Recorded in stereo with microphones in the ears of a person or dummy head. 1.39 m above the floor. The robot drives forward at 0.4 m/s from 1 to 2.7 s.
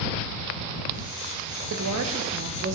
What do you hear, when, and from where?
1.7 s a woman speaking: 75° right (ahead or behind), 0.6 m; by 2.8 s 50° right (ahead or behind), 0.7 m